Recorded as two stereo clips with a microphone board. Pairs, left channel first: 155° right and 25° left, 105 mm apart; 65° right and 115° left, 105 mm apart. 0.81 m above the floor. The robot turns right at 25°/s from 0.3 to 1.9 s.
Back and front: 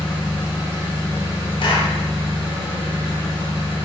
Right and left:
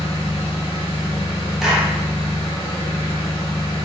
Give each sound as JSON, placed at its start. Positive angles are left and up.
{"t": 0.0, "sound": "an engine running", "azimuth_deg": -60, "distance_m": 1.4}
{"t": 1.6, "sound": "a clap", "azimuth_deg": -165, "distance_m": 0.5}